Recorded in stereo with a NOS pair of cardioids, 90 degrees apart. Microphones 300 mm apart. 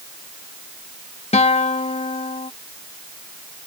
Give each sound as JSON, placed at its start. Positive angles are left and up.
{"t": 1.3, "sound": "a guitar", "azimuth_deg": 20}